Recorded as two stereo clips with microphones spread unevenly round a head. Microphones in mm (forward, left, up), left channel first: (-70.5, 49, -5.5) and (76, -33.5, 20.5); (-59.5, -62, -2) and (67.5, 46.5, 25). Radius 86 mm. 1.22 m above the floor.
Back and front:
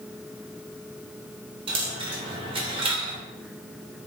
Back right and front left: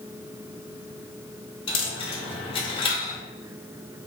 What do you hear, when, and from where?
1.7 s a dropped coin: 80° right, 0.9 m